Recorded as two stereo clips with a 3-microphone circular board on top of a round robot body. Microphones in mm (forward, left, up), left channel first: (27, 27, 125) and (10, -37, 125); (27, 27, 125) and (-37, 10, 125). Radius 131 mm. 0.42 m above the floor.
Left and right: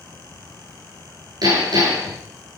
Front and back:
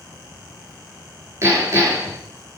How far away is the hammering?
About 7 m.